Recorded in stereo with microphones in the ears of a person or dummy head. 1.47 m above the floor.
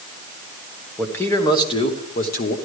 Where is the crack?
I don't hear a crack.